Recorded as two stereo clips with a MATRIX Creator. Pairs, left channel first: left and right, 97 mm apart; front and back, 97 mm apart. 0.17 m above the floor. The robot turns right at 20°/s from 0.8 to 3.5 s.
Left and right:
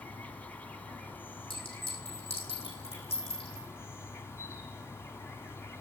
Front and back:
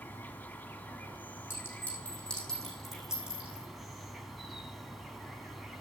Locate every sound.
0.0 s an insect: 40° left, 1.0 m; by 5.8 s 95° left, 1.0 m
1.5 s a clink: 65° left, 7 m; by 3.7 s 105° left, 7 m